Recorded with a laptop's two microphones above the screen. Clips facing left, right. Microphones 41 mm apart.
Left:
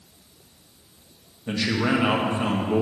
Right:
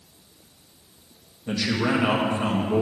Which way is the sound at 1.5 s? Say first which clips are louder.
Left 1 dB; 20° left (ahead or behind).